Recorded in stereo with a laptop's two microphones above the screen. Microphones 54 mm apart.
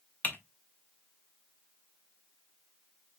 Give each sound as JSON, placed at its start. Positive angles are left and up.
{"t": 0.2, "sound": "typing on a keyboard", "side_deg": 30, "distance_m": 0.8}